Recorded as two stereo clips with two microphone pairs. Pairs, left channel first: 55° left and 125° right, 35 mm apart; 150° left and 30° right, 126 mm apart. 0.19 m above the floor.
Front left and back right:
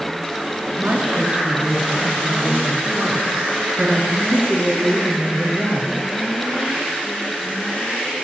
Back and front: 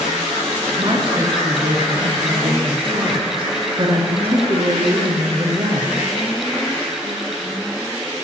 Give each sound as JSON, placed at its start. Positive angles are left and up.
{"t": 0.8, "sound": "a woman speaking", "azimuth_deg": -70, "distance_m": 3.0}